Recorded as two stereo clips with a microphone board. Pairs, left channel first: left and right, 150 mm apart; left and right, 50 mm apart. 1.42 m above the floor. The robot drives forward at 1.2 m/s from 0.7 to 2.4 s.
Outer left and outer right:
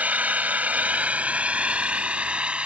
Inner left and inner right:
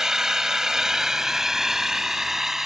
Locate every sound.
0.0 s an engine running: 10° right (ahead or behind); by 2.7 s 5° right (ahead or behind)